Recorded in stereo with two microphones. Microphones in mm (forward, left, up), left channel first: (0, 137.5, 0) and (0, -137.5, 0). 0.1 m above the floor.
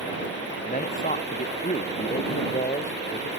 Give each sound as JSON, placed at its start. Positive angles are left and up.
{"t": 0.6, "sound": "a man speaking", "side_deg": 30}